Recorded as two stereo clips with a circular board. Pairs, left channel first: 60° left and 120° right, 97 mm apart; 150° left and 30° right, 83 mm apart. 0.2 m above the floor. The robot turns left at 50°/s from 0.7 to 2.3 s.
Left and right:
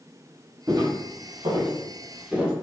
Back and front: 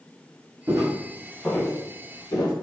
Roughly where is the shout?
I don't hear a shout.